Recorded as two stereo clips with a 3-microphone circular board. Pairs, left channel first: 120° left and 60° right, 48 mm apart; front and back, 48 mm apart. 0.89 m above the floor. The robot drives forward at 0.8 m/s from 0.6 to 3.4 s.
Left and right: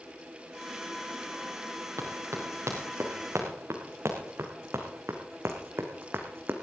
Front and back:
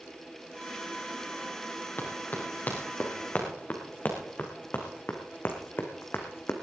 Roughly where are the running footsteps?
Ahead right.